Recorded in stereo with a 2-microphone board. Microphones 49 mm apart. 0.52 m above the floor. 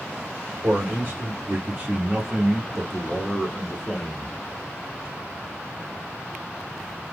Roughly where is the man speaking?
Right.